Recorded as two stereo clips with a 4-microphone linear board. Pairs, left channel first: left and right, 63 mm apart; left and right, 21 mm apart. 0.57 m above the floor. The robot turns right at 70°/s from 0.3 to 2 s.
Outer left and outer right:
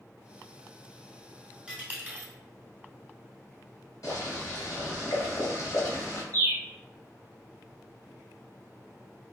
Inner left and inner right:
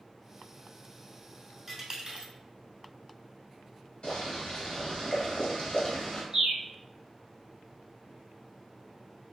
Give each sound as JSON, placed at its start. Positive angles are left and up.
{"t": 1.7, "sound": "a dropped coin", "side_deg": -15, "distance_m": 0.8}
{"t": 4.0, "sound": "boiling", "side_deg": 60, "distance_m": 1.3}
{"t": 6.3, "sound": "a bird", "side_deg": -60, "distance_m": 1.2}